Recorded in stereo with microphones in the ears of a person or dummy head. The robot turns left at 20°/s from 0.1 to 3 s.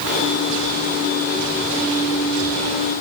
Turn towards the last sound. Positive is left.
No sound to turn to.